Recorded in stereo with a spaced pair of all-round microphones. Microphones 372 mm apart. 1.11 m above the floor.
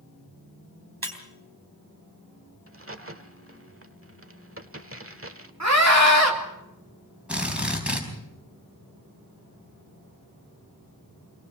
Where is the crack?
35° right (ahead or behind), 1.2 m.